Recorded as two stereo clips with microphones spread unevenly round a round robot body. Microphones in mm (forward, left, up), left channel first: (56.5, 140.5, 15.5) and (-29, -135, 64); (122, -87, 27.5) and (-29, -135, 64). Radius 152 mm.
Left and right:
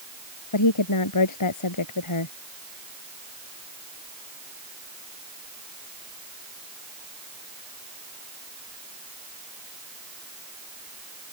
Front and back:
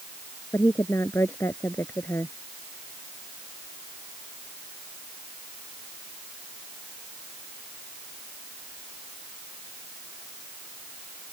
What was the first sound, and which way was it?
A woman speaking, 100° left.